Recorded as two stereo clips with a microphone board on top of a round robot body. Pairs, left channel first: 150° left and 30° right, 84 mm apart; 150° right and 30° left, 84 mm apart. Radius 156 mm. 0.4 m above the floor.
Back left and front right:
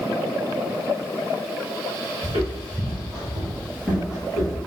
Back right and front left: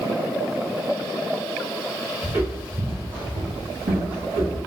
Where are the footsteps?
5° right, 1.7 m; by 4.6 s 65° left, 1.8 m.